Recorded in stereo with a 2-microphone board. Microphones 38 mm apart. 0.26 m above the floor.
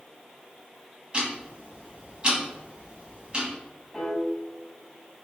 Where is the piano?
15° left (ahead or behind), 0.9 m.